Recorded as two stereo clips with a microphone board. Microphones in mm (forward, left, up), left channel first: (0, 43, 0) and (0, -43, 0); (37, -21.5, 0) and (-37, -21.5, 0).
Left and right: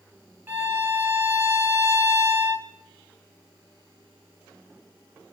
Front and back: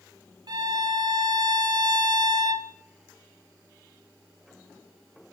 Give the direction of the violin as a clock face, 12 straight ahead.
5 o'clock.